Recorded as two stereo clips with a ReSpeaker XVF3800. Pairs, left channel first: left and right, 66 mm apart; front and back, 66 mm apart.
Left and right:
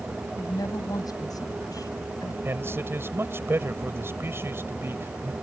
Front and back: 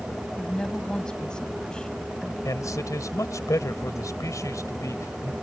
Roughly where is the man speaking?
Ahead right.